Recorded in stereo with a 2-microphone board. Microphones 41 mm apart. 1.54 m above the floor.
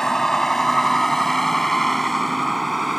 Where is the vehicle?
15° left (ahead or behind); by 3.0 s centre (ahead or behind).